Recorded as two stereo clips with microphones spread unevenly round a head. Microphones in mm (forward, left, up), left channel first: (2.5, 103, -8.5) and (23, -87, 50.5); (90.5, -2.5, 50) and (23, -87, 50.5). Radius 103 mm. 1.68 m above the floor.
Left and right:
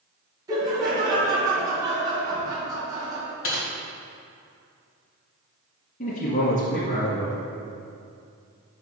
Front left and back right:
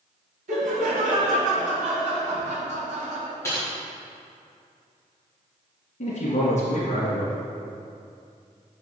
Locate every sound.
0.5 s laughter: 160° right, 2.5 m
3.4 s typing on a keyboard: 130° left, 1.8 m
6.0 s a man speaking: 40° left, 1.7 m